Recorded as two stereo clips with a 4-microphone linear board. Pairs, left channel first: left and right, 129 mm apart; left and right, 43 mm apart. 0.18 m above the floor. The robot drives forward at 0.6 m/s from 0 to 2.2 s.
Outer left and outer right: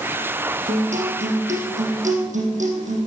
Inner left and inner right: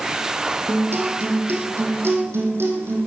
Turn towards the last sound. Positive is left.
turn(degrees=-75)  # may be behind; listen again after turning